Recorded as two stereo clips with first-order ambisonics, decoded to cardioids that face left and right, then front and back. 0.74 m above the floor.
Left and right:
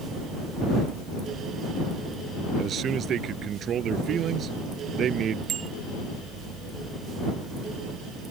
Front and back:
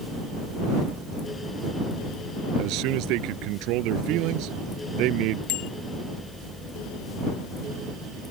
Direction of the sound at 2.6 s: 150° right.